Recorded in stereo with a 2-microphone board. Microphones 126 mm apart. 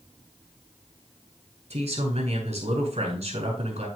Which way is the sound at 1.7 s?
55° right (ahead or behind).